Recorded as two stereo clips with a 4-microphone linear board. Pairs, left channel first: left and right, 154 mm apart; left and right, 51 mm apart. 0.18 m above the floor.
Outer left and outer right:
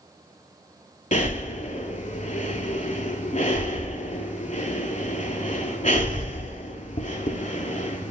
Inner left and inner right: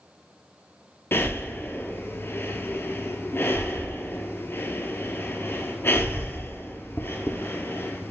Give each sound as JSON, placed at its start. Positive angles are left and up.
{"t": 1.1, "sound": "breathing", "side_deg": 50, "distance_m": 0.5}